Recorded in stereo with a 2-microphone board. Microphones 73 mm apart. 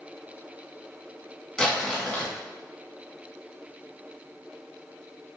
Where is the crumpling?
15° left (ahead or behind), 1.0 m.